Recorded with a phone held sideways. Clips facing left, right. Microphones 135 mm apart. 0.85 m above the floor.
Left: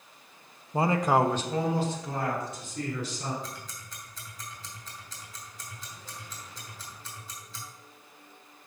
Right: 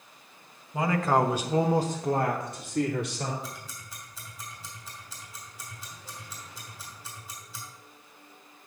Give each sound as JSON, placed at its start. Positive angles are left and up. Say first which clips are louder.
{"t": 0.7, "sound": "a man speaking", "louder": "left 1 dB", "side_deg": 35, "distance_m": 0.8}
{"t": 3.4, "sound": "ticking", "louder": "even", "side_deg": -5, "distance_m": 3.0}